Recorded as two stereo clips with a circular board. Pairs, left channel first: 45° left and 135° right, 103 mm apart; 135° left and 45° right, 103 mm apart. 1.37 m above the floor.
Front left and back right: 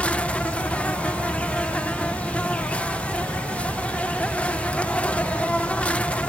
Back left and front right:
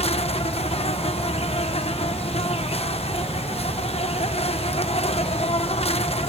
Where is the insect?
120° left.